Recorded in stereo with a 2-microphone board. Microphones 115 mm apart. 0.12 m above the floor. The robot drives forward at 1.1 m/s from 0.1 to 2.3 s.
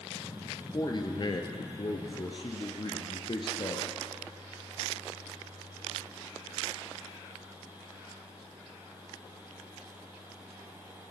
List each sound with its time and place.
0.7 s a man speaking: 40° left (ahead or behind), 2.5 m; by 3.9 s 45° left (ahead or behind), 2 m